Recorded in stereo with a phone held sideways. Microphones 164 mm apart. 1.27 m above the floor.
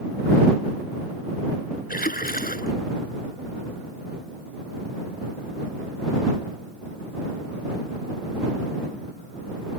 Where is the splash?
65° left (ahead or behind).